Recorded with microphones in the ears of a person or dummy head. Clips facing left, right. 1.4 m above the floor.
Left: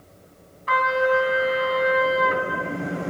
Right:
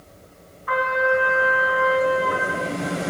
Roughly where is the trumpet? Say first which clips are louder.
Left 1 dB; left.